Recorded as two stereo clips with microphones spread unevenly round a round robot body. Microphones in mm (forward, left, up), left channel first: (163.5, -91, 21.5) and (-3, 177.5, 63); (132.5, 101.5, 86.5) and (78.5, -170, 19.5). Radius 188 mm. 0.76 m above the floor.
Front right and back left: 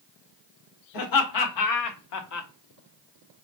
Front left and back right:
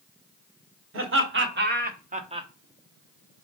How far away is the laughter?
About 2 m.